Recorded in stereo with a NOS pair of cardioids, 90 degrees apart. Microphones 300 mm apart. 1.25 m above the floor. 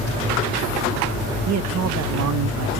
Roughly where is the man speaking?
Ahead right.